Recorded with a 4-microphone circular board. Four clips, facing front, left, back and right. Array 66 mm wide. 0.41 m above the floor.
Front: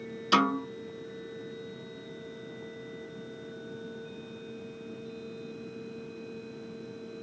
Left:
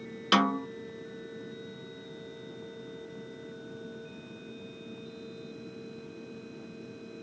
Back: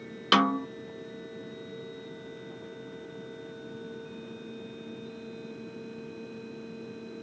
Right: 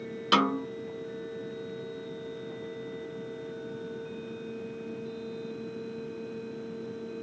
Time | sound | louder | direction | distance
0.3 | a snare drum | right 1 dB, back 1 dB | 175° left | 1.6 m